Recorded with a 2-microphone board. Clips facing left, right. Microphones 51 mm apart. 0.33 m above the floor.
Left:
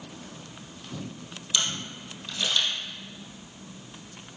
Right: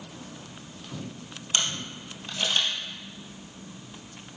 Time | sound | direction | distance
1.5 | a camera shutter | 40° right (ahead or behind) | 2 m